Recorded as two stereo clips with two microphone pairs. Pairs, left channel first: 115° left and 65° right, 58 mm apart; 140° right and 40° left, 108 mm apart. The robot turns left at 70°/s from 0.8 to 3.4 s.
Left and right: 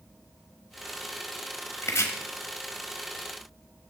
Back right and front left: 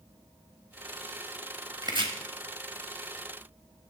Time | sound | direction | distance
1.8 | chopping | 95° left | 0.9 m